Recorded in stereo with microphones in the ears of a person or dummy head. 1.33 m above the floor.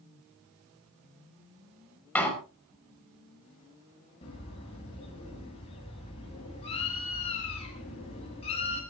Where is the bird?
30° left (ahead or behind), 7.5 m.